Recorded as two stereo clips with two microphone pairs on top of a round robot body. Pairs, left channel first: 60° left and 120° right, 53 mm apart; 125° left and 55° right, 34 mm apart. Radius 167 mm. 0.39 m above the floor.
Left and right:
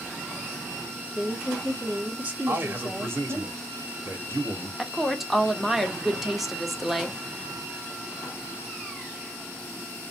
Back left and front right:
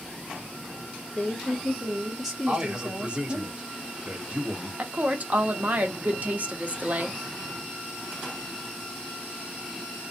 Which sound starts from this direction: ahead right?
A woman speaking, at 4.8 s.